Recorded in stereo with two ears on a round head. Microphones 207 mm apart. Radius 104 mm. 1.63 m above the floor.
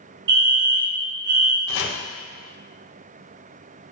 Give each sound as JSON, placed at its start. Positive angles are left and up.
{"t": 0.3, "sound": "a fire alarm", "side_deg": -45, "distance_m": 0.9}
{"t": 1.7, "sound": "chopping", "side_deg": 55, "distance_m": 0.8}